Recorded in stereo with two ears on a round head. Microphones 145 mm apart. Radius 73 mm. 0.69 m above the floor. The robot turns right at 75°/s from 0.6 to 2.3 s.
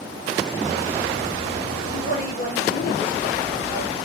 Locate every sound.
1.9 s a woman speaking: 30° left, 2.5 m; by 4.0 s 65° left, 2.5 m